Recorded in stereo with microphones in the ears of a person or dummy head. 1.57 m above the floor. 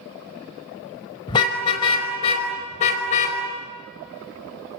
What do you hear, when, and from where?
1.3 s a car horn: 25° left (ahead or behind), 4.5 m; by 3.4 s 45° left (ahead or behind), 4.5 m